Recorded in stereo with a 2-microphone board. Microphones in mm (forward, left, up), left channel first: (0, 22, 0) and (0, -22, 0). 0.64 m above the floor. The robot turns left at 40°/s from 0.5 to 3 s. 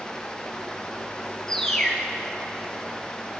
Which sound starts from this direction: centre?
A bird, at 1.5 s.